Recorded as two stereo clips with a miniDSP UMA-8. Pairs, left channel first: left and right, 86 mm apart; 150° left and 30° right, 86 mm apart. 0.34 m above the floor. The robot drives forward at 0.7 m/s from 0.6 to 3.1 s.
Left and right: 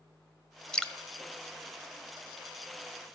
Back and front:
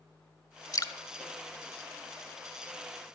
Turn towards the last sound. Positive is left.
turn(degrees=175)